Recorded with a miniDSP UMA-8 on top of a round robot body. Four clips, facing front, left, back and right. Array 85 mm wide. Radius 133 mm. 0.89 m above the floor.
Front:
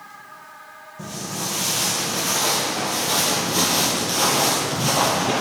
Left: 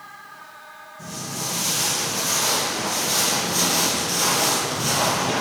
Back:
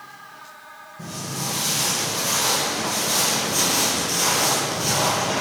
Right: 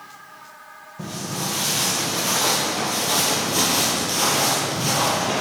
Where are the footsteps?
75° right, 2.5 m; by 5.4 s 5° left, 1.4 m.